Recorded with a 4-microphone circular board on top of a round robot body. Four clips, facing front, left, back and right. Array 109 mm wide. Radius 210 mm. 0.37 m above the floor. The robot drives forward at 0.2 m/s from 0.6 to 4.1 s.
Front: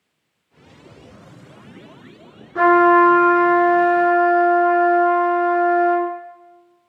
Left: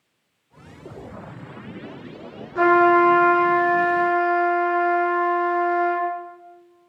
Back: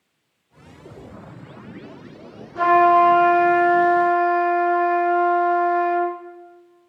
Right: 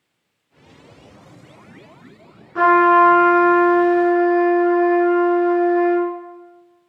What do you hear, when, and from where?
2.5 s a trumpet: 55° right, 4.5 m; by 6.1 s 60° right, 4.5 m